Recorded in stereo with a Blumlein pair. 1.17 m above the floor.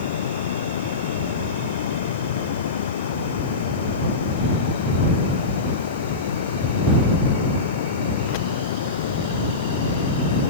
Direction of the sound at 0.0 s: 60° left.